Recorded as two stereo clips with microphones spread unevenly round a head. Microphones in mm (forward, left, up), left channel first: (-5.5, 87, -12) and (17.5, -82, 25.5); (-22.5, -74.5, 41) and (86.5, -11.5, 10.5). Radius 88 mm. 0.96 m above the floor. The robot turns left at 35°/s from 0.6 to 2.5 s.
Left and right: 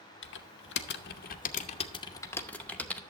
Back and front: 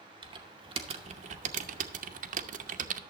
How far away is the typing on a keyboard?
About 0.7 m.